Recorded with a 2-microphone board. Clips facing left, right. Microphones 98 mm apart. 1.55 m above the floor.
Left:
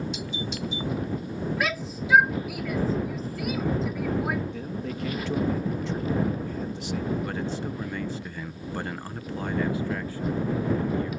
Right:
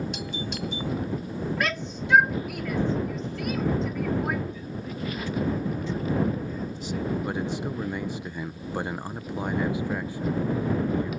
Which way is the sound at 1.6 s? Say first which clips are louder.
Even; 5° left (ahead or behind).